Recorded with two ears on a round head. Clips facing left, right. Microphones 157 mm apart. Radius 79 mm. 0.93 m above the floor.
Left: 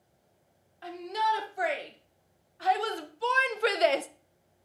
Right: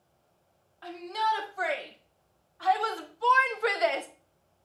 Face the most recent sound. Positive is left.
turn(degrees=40)  # may be behind; listen again after turning